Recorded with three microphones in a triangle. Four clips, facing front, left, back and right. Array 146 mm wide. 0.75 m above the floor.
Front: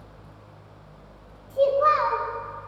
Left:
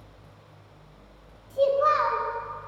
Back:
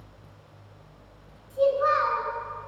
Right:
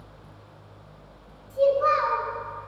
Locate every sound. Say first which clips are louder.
1.5 s a child speaking: right 1 dB, front 2 dB; 10° left, 1.0 m